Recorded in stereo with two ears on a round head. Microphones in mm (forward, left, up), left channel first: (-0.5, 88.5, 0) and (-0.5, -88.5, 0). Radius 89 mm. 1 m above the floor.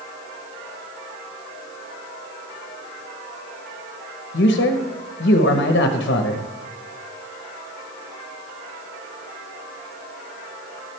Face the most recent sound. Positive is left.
turn(degrees=55)  # may be behind; listen again after turning